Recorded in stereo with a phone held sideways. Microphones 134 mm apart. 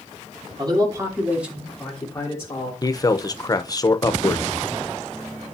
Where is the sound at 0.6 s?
35° right (ahead or behind), 3 m; by 2.7 s 30° left (ahead or behind), 3.5 m.